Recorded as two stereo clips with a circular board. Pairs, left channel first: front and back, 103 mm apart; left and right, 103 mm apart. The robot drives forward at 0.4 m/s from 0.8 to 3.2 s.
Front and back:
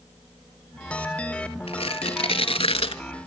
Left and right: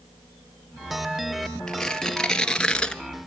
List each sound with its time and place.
1.7 s tearing paper: 5° left, 1.3 m; by 3.0 s 10° left, 0.8 m